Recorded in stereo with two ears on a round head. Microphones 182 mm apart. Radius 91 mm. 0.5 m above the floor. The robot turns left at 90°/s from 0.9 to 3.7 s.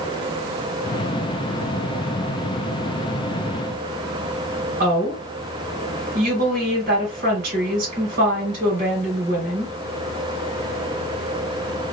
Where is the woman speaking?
50° right (ahead or behind), 3 m.